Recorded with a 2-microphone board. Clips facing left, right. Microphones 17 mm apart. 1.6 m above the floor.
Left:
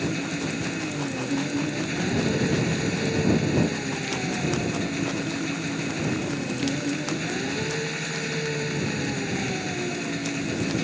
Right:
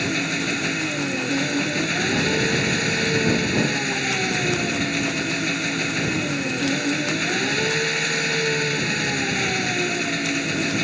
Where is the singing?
I don't hear singing.